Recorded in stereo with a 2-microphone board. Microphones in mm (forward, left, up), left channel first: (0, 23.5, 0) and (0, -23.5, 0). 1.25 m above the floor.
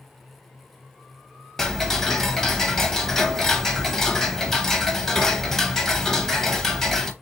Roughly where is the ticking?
Centre.